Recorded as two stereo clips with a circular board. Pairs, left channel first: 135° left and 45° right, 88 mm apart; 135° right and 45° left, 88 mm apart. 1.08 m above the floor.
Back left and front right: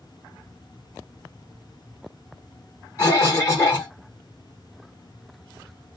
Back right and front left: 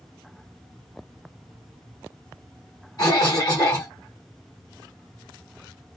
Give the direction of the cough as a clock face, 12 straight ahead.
6 o'clock.